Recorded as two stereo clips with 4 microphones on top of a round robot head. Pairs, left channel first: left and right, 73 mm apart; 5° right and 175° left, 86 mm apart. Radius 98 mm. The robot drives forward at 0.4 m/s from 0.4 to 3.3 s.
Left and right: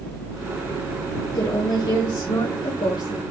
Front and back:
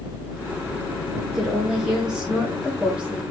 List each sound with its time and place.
1.3 s a woman speaking: 90° left, 4 m; by 3.2 s 100° left, 4 m